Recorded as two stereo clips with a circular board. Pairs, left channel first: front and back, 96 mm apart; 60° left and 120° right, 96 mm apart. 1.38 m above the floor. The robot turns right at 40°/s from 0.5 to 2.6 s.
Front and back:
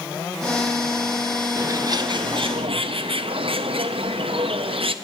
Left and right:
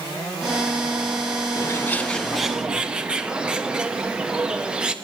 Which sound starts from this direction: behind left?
A bird, at 1.6 s.